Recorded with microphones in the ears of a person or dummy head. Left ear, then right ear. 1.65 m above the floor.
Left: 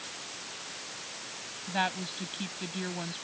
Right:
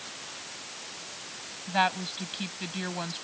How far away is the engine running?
No engine running in this recording.